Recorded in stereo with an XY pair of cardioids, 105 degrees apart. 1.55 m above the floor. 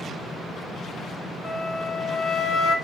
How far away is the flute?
About 3.5 m.